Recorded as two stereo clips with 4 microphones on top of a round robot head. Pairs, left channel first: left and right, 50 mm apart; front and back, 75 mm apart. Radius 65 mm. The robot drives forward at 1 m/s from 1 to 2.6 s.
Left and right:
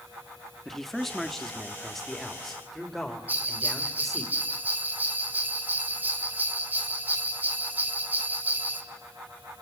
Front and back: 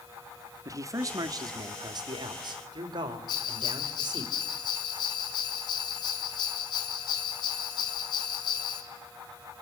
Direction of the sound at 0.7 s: 175° left.